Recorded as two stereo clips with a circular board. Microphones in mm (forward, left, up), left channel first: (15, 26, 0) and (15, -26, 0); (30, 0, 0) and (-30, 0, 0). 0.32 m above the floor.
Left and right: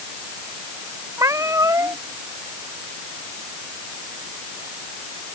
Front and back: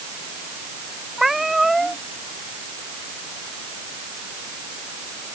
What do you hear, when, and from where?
1.2 s a cat meowing: 95° right